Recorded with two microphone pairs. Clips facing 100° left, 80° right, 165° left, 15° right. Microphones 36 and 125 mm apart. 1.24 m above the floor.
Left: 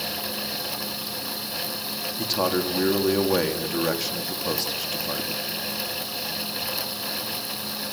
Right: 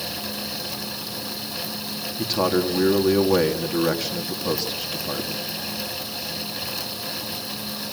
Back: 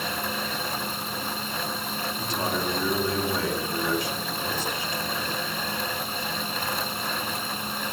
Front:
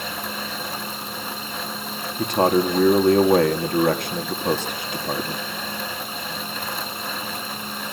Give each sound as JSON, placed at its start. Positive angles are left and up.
{"t": 2.2, "sound": "a man speaking", "azimuth_deg": 10, "distance_m": 2.5}